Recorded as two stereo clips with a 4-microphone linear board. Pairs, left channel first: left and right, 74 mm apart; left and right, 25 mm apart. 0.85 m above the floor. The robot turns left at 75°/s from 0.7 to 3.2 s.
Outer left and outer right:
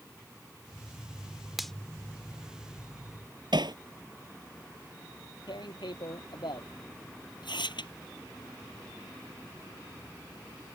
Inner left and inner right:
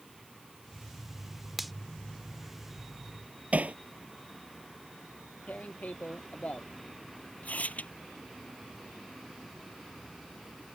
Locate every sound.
1.6 s a finger snap: 5° right (ahead or behind); by 1.7 s 10° left (ahead or behind)
3.5 s hammering: 70° right (ahead or behind)
5.5 s tearing paper: 85° left